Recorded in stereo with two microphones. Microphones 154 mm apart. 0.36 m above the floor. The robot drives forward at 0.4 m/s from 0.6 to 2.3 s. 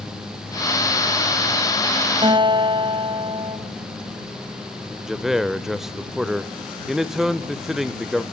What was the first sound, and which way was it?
A guitar, 30° right (ahead or behind).